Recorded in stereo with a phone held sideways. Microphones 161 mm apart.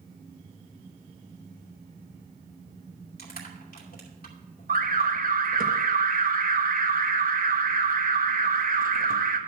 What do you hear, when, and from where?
3.2 s crushing: 70° left (ahead or behind), 2.5 m
4.7 s an alarm: 60° right (ahead or behind), 1.0 m